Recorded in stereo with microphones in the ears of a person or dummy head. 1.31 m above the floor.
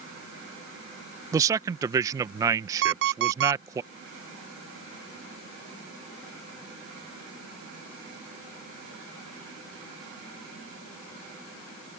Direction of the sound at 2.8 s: 70° right (ahead or behind).